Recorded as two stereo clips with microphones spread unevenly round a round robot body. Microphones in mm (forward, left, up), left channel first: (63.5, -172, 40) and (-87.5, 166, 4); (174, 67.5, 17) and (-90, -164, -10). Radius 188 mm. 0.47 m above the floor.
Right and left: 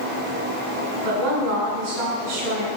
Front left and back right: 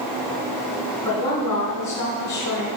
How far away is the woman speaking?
About 4.5 m.